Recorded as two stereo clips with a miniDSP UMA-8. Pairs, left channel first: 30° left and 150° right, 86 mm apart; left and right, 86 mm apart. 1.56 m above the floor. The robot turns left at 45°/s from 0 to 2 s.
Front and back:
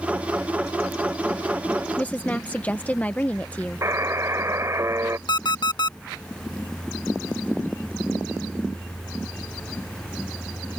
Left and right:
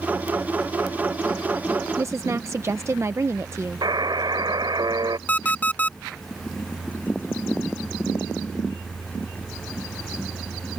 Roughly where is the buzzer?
Right.